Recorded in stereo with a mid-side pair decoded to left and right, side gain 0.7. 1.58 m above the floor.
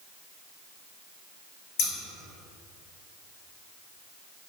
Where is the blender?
No blender in this recording.